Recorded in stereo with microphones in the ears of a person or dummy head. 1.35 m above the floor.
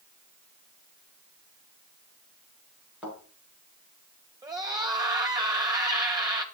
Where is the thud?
5° right (ahead or behind), 7 m.